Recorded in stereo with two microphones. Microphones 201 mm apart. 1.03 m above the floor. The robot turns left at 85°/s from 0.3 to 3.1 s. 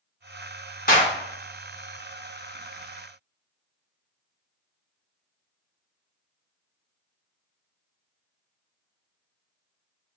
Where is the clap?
45° left (ahead or behind), 1.2 m; by 1.1 s 25° left (ahead or behind), 1.2 m.